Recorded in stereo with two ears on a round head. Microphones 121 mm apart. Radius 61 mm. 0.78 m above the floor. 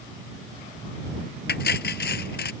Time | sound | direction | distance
1.5 | cutlery clinking | 80° left | ?